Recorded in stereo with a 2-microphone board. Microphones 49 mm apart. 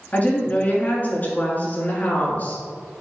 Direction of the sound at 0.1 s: 35° left (ahead or behind).